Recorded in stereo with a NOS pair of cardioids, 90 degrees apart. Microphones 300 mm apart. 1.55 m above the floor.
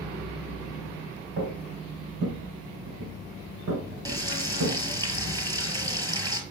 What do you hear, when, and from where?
1.4 s footsteps: 55° right, 5 m
4.0 s frying: 10° right, 5.5 m